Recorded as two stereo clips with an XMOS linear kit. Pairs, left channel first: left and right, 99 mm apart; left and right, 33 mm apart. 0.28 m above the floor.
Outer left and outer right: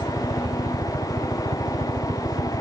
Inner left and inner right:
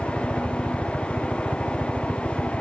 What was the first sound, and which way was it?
A helicopter, 65° right (ahead or behind).